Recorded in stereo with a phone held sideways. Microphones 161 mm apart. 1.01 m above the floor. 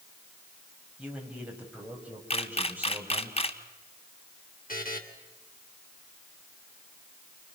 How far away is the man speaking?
About 5.5 m.